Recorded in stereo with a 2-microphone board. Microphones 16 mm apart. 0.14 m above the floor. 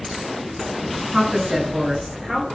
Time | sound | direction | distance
1.1 | a woman speaking | 35° right (ahead or behind) | 2 m